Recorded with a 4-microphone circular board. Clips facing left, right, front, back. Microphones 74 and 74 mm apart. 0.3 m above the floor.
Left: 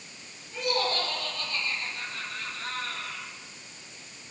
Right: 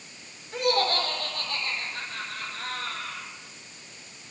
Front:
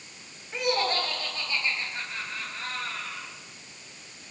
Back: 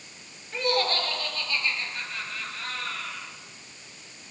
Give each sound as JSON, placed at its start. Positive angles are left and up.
{"t": 0.5, "sound": "laughter", "azimuth_deg": -75, "distance_m": 5.0}